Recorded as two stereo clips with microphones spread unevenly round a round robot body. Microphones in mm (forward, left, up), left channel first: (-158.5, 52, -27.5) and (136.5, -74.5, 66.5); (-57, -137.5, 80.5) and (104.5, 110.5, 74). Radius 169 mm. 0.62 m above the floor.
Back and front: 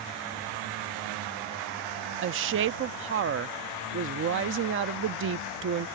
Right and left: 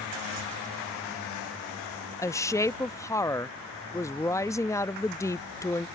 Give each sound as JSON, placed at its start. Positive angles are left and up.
{"t": 2.2, "sound": "a woman speaking", "azimuth_deg": -55}